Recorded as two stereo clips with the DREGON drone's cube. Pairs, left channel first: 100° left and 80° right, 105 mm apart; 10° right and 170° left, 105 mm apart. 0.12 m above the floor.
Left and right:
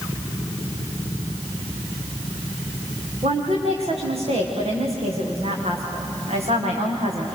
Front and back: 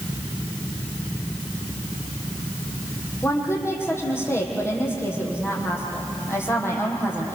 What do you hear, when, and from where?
3.2 s a woman speaking: 75° right, 6 m